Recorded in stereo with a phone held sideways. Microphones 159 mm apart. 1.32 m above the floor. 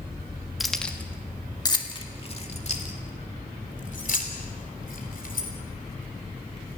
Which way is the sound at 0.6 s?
Centre (ahead or behind).